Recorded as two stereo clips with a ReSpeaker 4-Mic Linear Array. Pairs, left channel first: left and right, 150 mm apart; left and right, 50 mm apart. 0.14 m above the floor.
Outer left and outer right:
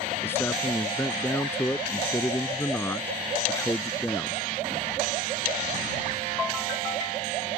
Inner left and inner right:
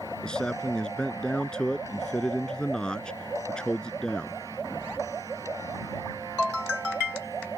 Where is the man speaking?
15° left (ahead or behind).